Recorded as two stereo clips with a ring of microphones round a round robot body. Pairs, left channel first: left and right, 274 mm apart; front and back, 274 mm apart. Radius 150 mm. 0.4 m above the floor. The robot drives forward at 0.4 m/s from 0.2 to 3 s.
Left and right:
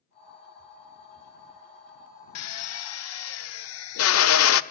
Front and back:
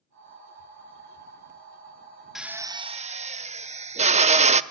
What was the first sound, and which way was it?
A drill, 90° left.